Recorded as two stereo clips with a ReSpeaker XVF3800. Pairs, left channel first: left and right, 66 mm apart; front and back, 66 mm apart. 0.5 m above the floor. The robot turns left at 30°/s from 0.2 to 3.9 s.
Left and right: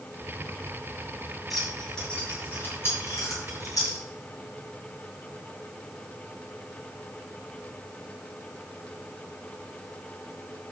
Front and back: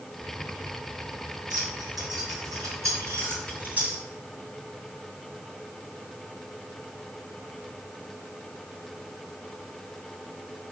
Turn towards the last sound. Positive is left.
turn(degrees=110)